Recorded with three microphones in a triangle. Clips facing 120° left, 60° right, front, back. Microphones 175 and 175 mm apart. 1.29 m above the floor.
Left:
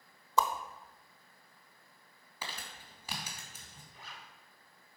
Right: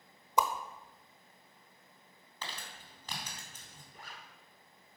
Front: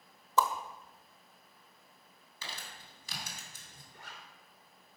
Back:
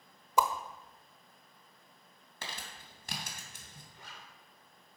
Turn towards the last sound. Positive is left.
turn(degrees=-20)